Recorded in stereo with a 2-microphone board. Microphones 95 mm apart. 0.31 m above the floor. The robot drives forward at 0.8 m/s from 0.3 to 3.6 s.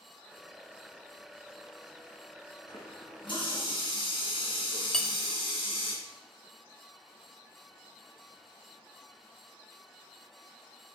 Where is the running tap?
50° left (ahead or behind), 2.5 m; by 5.9 s 65° left (ahead or behind), 2 m.